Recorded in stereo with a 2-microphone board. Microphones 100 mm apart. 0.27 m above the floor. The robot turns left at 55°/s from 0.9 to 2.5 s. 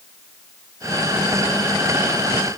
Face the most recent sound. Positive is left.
No sound to turn to.